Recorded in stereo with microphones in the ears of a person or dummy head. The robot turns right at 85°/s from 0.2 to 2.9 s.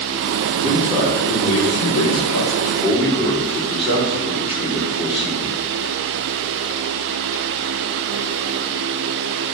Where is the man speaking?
45° right, 3 m; by 5.5 s 160° left, 3 m.